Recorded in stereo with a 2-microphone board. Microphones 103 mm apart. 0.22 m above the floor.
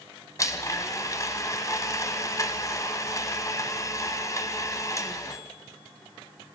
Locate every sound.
0.4 s a blender: 35° left (ahead or behind), 1.6 m